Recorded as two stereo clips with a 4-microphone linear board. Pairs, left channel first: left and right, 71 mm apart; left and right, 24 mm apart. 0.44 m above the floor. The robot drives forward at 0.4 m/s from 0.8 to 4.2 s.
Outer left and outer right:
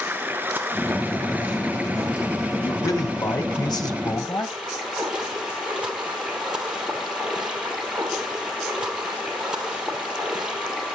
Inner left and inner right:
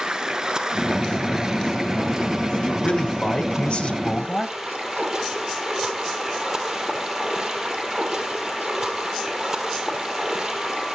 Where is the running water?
25° right (ahead or behind), 1.3 m; by 11.0 s 10° right (ahead or behind), 2.5 m.